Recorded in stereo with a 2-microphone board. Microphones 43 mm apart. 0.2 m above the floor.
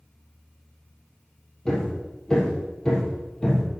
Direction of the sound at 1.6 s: 15° left (ahead or behind).